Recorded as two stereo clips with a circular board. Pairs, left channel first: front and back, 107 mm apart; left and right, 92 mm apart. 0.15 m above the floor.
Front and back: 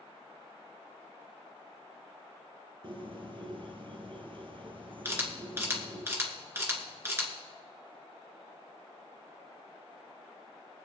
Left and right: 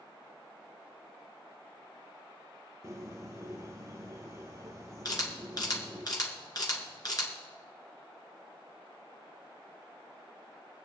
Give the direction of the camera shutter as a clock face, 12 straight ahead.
8 o'clock.